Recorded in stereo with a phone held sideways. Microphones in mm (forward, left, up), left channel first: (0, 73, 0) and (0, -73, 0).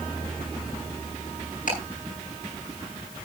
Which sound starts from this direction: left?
Ticking, at 1.7 s.